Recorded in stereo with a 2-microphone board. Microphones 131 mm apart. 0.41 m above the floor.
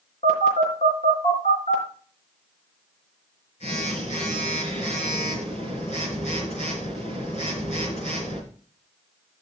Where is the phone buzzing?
60° left (ahead or behind), 4.5 m.